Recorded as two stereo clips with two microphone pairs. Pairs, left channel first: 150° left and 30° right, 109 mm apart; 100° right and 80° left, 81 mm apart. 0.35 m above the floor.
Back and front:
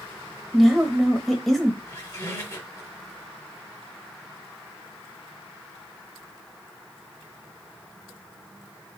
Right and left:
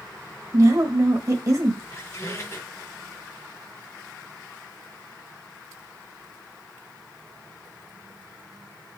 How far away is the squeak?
About 1.7 m.